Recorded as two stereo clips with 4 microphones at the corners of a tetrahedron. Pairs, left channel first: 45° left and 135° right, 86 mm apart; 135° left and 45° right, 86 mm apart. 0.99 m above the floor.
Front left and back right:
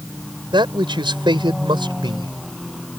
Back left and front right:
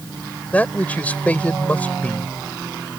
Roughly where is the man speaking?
Behind right.